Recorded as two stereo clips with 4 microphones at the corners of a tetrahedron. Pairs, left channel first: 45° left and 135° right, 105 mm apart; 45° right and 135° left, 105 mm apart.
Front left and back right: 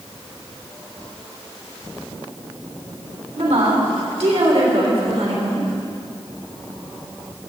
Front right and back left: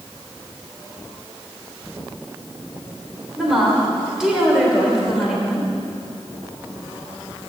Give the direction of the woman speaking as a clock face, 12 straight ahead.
5 o'clock.